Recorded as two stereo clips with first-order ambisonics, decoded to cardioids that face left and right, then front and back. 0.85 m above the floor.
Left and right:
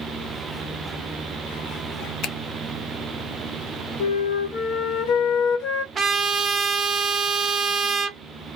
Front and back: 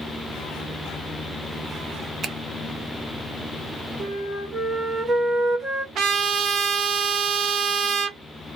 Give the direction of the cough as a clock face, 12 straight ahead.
No cough in this recording.